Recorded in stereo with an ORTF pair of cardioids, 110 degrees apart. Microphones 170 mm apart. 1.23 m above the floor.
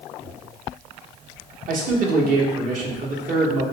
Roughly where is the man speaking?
Ahead right.